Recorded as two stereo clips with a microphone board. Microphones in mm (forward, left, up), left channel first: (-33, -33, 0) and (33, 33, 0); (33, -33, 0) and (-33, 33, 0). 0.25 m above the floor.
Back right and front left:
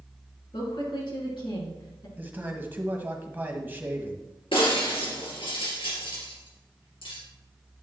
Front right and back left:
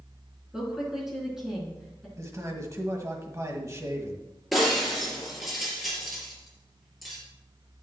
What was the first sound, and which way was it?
A woman speaking, 140° right.